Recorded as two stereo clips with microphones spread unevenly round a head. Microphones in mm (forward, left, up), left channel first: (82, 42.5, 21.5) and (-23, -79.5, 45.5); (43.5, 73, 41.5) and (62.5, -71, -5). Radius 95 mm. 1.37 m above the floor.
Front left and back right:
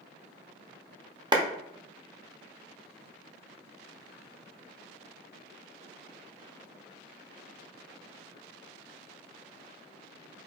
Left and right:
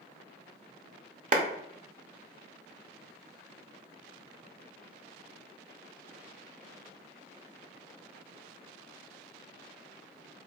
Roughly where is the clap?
Ahead right.